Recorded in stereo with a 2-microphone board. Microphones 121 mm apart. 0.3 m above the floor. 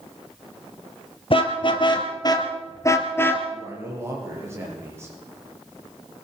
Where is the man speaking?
25° right (ahead or behind), 7.5 m.